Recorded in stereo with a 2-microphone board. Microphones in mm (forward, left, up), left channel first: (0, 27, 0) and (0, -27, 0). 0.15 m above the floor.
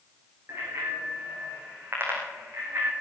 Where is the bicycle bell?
45° right (ahead or behind), 7 m; by 2.9 s 35° right (ahead or behind), 4.5 m.